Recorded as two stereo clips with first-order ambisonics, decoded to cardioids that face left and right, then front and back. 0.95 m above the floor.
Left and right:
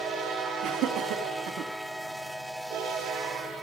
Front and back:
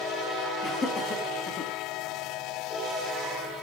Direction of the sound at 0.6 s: 80° right.